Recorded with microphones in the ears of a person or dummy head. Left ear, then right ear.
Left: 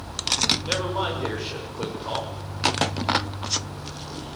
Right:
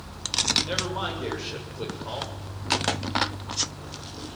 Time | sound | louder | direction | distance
0.7 | a man speaking | left 3 dB | 5° left (ahead or behind) | 7.5 m